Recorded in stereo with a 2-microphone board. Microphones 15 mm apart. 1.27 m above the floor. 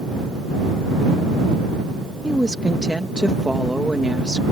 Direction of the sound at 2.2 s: 60° right (ahead or behind).